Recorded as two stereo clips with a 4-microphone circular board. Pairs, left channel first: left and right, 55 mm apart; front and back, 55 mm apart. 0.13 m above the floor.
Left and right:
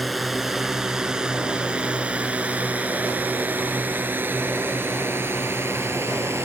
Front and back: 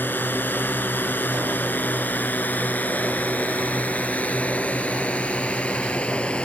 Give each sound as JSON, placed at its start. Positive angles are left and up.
{"t": 0.0, "sound": "a drone", "azimuth_deg": 0}